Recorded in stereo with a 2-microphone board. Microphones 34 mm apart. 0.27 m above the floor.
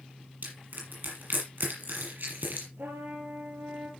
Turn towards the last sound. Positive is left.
turn(degrees=-70)  # may be behind; listen again after turning